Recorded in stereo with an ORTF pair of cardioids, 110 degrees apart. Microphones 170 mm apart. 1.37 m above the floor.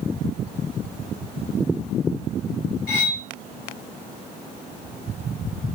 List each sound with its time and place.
2.9 s cutlery clinking: 60° left, 3.5 m